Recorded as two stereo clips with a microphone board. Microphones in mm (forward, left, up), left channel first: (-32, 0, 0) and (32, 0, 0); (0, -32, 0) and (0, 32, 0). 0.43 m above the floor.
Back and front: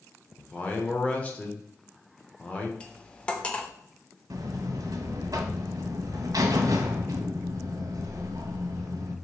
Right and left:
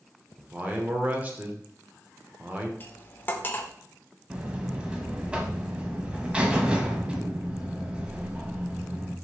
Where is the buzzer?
15° left, 0.7 m.